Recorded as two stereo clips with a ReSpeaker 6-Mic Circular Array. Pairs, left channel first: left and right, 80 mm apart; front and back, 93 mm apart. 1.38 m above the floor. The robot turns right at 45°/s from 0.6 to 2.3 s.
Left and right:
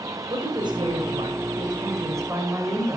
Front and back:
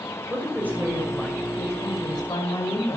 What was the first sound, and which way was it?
A woman speaking, 110° right.